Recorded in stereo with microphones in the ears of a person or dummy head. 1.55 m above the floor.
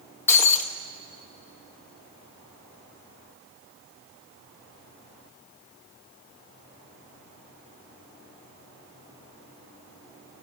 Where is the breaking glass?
10° left (ahead or behind), 1.4 m.